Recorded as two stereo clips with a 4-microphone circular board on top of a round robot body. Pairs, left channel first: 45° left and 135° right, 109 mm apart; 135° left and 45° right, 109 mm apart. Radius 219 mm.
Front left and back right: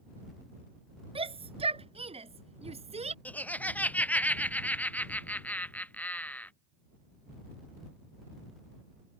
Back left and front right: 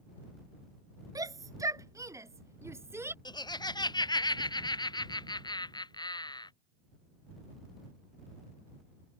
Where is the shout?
100° right; by 3.1 s 115° right.